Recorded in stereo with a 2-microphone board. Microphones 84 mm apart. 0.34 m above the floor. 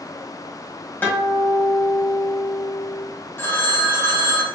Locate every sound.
1.0 s a guitar: 20° left (ahead or behind), 1.4 m
3.4 s a phone ringing: 25° left (ahead or behind), 1.0 m